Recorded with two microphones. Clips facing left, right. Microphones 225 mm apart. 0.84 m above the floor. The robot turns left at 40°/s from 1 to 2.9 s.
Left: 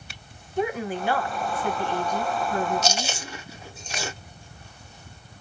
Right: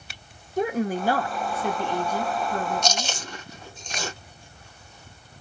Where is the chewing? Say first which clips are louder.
Left 1 dB; 5° left (ahead or behind), 1.2 m.